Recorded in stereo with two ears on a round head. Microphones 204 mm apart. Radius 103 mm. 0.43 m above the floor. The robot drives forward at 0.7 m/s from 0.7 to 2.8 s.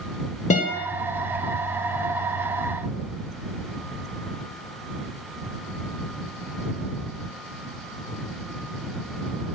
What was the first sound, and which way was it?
A guitar, 30° left (ahead or behind).